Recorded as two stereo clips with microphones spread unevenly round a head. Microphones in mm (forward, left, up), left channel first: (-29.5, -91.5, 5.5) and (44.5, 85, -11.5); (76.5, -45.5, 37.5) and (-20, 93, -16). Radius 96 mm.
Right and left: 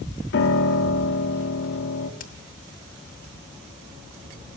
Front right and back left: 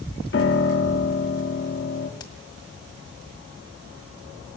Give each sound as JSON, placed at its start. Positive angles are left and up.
{"t": 0.3, "sound": "a piano", "azimuth_deg": -85, "distance_m": 2.5}
{"t": 2.2, "sound": "a crack", "azimuth_deg": -100, "distance_m": 1.7}